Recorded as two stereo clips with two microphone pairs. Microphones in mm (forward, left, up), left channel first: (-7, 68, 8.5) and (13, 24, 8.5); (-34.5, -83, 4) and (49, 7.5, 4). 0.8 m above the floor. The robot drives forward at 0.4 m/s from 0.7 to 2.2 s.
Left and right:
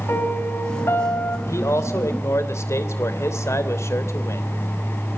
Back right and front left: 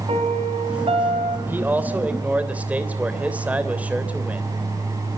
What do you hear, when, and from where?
0.1 s a piano: 85° left, 5 m; by 1.4 s 90° left, 5 m
1.5 s a man speaking: 120° left, 3 m; by 4.5 s 125° left, 3 m